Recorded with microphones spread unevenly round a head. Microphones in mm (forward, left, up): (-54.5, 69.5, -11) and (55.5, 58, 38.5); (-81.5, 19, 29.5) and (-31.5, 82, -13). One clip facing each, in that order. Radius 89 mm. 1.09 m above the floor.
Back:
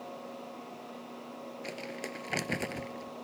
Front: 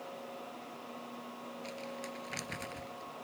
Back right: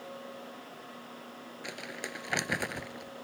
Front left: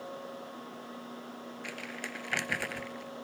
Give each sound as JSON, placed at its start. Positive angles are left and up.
{"t": 1.6, "sound": "crumpling", "azimuth_deg": 165}